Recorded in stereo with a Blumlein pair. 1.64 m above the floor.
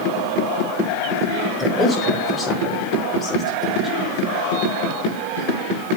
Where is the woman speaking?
10° left, 3.5 m; by 4.0 s 25° left, 4.5 m.